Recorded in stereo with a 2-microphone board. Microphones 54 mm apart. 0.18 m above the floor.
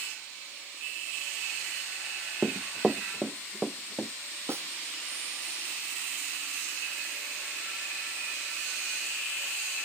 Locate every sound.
2.4 s running footsteps: 10° right (ahead or behind)
4.5 s a snare drum: 55° right (ahead or behind)